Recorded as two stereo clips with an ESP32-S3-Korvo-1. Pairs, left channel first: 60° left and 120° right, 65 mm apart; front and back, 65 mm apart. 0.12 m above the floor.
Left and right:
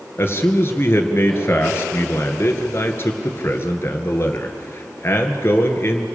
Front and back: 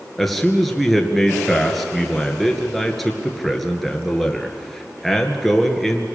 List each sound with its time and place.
0.2 s a man speaking: 90° left, 2 m